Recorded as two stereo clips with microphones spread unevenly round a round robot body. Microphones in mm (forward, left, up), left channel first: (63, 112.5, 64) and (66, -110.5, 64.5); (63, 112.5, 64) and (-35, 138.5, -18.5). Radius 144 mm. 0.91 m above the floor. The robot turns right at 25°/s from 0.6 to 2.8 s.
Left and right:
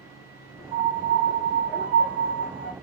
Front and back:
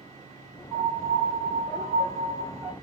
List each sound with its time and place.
0.7 s a piano: 140° left, 1.8 m; by 2.7 s 170° right, 1.8 m